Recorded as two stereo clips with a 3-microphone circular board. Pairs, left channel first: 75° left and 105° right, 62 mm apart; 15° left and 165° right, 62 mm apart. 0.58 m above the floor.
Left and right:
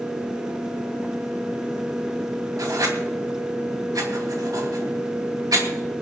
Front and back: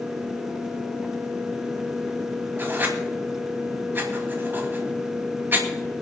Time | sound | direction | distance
2.6 | writing | 110° right | 3 m